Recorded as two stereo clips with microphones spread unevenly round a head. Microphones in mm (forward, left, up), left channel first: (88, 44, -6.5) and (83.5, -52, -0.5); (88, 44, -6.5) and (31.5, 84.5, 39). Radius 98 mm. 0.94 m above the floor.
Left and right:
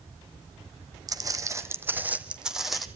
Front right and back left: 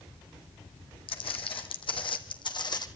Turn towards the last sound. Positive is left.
turn(degrees=0)